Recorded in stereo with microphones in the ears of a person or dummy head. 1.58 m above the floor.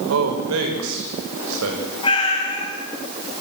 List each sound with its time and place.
0.1 s a man speaking: 80° right, 5.5 m
2.0 s a cat meowing: 25° left (ahead or behind), 5.5 m